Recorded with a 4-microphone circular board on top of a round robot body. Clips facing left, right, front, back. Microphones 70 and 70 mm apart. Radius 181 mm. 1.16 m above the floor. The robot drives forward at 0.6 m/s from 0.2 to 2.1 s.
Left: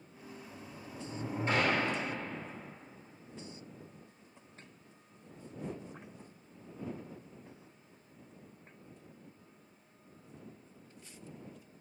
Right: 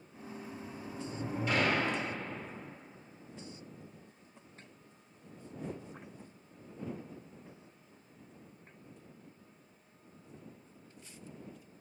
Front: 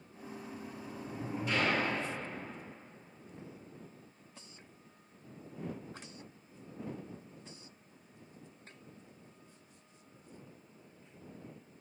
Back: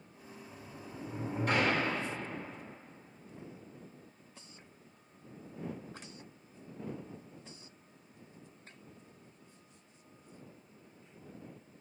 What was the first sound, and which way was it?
A sliding door, 135° left.